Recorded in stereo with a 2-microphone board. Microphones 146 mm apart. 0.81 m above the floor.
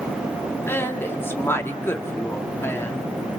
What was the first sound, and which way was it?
A woman speaking, 15° left (ahead or behind).